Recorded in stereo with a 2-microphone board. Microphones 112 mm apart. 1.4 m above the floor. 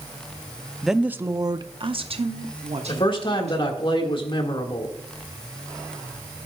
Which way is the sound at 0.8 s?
Centre (ahead or behind).